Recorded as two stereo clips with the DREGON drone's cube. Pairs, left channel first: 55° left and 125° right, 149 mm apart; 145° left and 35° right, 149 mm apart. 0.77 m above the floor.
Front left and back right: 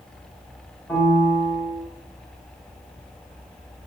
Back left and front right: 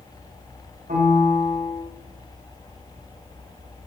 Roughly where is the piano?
Ahead.